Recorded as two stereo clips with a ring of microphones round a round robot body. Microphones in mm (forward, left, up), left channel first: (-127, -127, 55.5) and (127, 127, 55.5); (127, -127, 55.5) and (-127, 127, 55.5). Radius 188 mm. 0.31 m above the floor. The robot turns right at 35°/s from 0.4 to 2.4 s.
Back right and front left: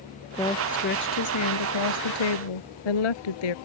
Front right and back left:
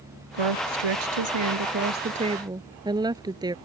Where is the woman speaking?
145° left; by 3.5 s 145° right.